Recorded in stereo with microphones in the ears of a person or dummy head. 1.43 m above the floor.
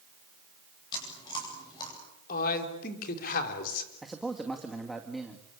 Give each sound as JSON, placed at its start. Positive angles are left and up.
{"t": 0.9, "sound": "chewing", "side_deg": 25, "distance_m": 9.0}
{"t": 2.3, "sound": "a man speaking", "side_deg": 50, "distance_m": 4.0}
{"t": 4.0, "sound": "a man speaking", "side_deg": 0, "distance_m": 2.0}